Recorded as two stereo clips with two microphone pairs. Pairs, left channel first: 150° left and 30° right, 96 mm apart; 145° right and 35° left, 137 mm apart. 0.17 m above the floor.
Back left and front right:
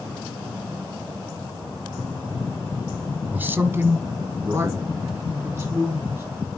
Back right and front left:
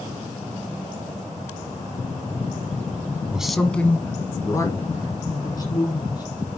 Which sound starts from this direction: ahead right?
A man speaking, at 3.3 s.